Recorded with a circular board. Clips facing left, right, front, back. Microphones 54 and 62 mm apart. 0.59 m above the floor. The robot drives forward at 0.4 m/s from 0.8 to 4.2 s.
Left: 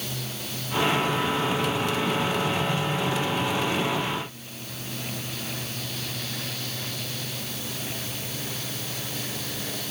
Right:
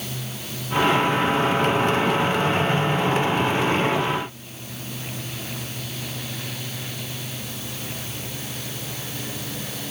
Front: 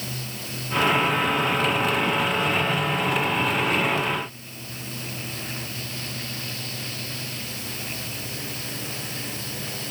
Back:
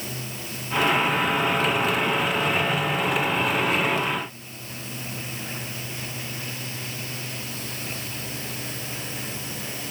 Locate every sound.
Only background noise.